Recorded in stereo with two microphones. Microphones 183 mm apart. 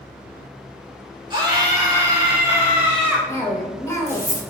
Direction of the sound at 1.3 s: 25° right (ahead or behind).